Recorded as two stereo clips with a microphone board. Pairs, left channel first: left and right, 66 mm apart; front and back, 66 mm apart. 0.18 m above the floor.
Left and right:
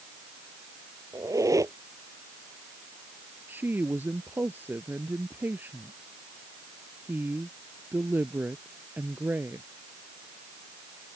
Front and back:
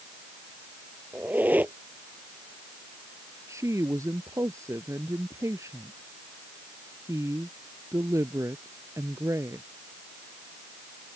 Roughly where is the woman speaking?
Behind right.